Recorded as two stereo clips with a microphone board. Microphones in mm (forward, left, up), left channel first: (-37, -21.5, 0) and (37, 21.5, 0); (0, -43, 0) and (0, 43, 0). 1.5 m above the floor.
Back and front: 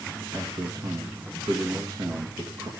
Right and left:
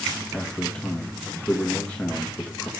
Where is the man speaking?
15° right, 1.5 m.